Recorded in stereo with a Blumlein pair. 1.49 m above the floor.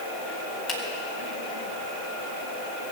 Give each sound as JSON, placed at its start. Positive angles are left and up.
{"t": 0.7, "sound": "a finger snap", "azimuth_deg": 30, "distance_m": 3.5}